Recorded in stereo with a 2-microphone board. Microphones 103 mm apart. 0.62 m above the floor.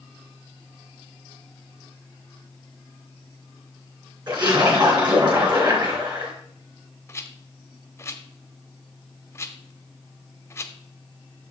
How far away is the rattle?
About 0.8 m.